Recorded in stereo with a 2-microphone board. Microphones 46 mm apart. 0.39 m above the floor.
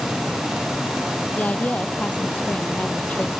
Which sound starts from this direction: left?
A woman speaking, at 1.4 s.